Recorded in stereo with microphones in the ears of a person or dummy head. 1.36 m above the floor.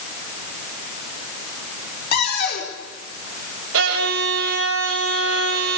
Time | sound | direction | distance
2.1 | a cupboard door | 60° left (ahead or behind) | 4 m
3.7 | a violin | 85° right | 5 m